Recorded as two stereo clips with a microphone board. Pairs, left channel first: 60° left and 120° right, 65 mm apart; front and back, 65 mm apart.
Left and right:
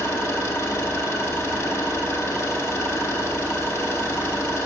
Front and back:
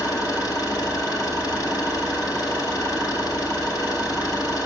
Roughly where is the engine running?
Ahead.